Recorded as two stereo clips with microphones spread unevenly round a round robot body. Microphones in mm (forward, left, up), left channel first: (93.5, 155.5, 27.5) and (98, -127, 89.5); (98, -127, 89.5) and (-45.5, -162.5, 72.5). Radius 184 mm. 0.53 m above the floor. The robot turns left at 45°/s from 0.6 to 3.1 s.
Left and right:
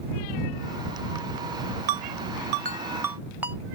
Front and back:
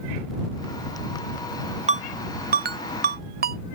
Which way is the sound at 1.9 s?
120° right.